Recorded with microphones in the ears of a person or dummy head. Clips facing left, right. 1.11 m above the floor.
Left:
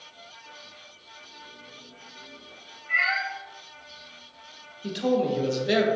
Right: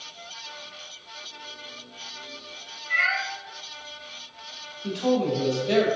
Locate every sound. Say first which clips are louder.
2.9 s a cat meowing: even; 60° left (ahead or behind), 2.0 m
4.8 s a man speaking: right 1 dB; 25° left (ahead or behind), 0.6 m